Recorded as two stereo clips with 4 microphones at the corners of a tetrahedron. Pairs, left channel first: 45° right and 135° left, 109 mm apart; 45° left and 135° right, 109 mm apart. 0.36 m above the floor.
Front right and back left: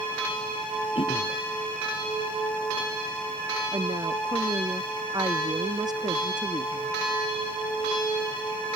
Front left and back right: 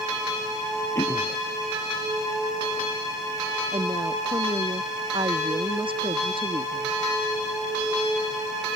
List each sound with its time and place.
0.9 s throat clearing: 15° right
3.7 s a woman speaking: 175° right